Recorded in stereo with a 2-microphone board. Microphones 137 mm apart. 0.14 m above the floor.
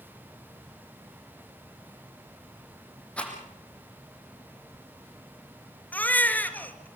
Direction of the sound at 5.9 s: 15° left (ahead or behind).